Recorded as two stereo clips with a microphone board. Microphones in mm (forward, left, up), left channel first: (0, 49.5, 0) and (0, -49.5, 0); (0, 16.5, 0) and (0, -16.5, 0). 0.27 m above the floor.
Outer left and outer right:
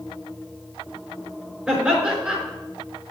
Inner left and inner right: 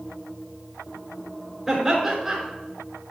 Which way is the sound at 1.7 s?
10° right (ahead or behind).